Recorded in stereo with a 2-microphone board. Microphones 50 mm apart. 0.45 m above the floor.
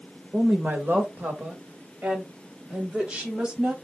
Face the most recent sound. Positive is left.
turn(degrees=-20)  # may be behind; listen again after turning